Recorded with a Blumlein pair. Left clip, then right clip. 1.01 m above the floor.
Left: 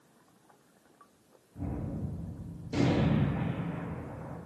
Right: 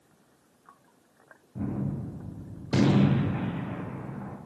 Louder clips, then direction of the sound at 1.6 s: Right 5 dB; 30° right.